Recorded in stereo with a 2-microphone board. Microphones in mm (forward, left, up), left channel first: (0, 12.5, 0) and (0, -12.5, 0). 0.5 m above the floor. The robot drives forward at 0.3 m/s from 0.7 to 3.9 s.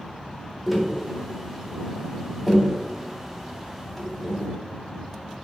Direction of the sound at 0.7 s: 5° right (ahead or behind).